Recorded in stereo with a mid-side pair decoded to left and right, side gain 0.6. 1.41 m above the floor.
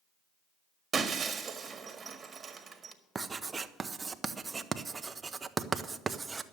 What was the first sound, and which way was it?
Breaking glass, 30° right.